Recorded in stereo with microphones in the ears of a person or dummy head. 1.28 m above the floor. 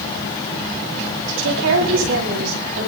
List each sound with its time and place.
1.3 s a woman speaking: 70° right (ahead or behind), 8 m; by 2.9 s 75° right (ahead or behind), 8.5 m